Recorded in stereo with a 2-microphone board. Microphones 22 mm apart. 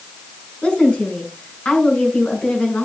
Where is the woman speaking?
85° left, 5.5 m.